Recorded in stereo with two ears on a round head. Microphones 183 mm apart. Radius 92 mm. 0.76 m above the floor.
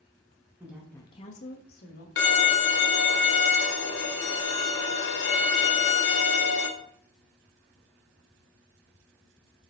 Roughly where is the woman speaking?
Centre.